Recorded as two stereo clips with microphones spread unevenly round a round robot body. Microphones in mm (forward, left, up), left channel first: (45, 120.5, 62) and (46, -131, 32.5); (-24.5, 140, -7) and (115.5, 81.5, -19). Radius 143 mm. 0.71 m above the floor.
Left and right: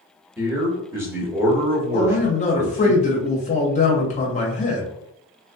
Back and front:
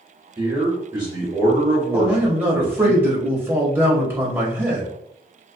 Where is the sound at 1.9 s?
35° left, 0.7 m.